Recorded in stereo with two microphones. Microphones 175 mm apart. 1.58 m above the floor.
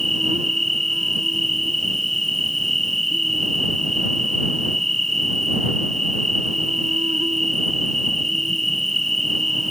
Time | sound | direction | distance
0.0 | an insect | 40° right (ahead or behind) | ?